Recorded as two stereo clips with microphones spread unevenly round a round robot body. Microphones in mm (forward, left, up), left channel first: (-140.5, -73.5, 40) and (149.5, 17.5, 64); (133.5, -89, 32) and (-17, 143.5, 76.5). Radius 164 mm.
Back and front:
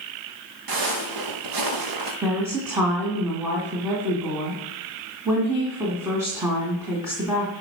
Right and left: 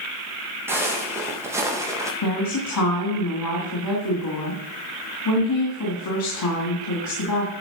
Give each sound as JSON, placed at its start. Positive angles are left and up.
{"t": 0.7, "sound": "footsteps", "azimuth_deg": 40, "distance_m": 5.0}
{"t": 2.2, "sound": "a woman speaking", "azimuth_deg": -65, "distance_m": 3.5}